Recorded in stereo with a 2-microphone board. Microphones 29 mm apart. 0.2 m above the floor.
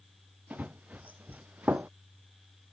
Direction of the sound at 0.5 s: 65° right (ahead or behind).